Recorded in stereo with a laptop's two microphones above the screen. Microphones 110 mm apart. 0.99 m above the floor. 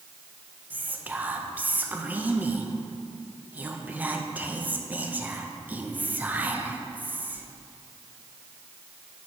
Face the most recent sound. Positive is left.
turn(degrees=-15)  # may be behind; listen again after turning